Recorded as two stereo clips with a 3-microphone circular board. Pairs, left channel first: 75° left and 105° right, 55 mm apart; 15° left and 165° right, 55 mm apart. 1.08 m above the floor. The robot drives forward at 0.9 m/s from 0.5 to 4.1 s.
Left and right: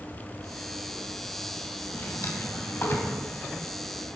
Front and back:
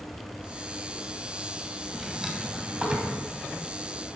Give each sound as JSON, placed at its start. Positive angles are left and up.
{"t": 1.9, "sound": "a drawer", "azimuth_deg": 105, "distance_m": 2.5}